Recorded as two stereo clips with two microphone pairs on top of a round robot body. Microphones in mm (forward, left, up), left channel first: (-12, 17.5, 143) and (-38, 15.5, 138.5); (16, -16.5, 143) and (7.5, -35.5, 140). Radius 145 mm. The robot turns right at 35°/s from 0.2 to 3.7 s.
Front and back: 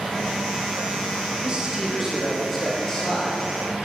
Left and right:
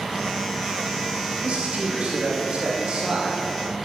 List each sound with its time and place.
1.4 s a man speaking: 120° right, 3 m; by 3.5 s 50° right, 3 m